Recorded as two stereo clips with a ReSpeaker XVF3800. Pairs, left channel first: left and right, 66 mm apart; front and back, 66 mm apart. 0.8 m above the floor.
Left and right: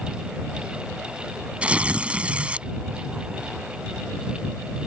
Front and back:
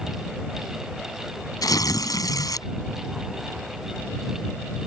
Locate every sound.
1.6 s tearing paper: 20° right